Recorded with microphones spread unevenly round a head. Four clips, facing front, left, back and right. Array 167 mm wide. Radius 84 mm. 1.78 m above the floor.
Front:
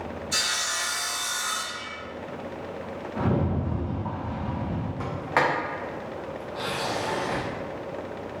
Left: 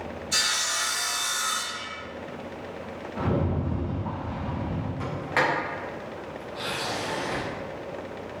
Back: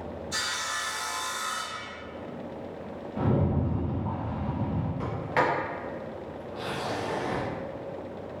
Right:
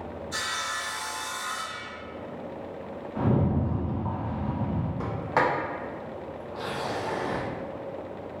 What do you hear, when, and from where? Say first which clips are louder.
0.3 s sawing: left 1 dB, front 1 dB; 75° left, 1.0 m
3.1 s a rattle: right 2 dB, even; 45° right, 1.5 m
5.0 s a sliding door: right 1 dB, front 2 dB; 45° right, 0.8 m